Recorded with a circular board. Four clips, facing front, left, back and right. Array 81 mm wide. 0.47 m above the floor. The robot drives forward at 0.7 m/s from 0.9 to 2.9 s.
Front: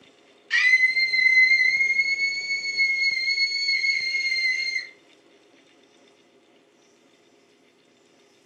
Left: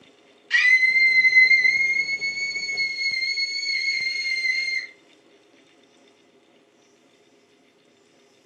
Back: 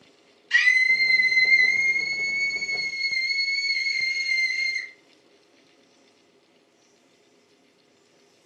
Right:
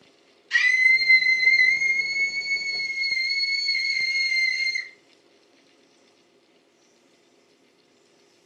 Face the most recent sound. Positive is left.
turn(degrees=85)